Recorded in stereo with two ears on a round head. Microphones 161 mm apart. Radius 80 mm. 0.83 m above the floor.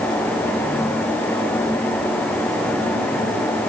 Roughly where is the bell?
I don't hear a bell.